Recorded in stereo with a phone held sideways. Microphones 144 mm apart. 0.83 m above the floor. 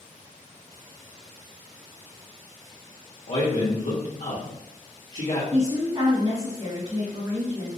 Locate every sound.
3.3 s a man speaking: 70° left (ahead or behind), 1.1 m
5.5 s a woman speaking: 50° right (ahead or behind), 1.7 m